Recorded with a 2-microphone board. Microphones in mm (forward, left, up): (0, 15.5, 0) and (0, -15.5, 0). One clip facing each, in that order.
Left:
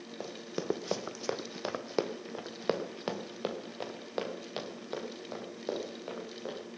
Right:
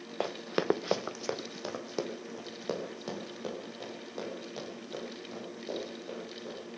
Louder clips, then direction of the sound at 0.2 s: Right 7 dB; 65° right (ahead or behind).